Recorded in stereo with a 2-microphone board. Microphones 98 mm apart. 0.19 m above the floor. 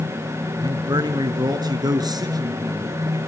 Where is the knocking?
I don't hear knocking.